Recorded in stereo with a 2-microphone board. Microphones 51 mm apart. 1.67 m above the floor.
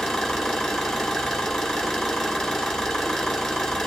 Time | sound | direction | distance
0.0 | an engine running | 5° left (ahead or behind) | 3 m